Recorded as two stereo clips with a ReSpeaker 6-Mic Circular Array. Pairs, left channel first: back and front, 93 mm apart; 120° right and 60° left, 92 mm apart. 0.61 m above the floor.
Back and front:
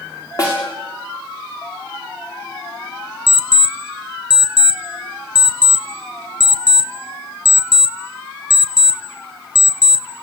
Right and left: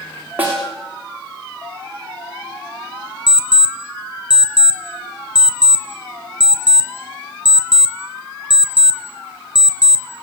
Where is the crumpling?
No crumpling in this recording.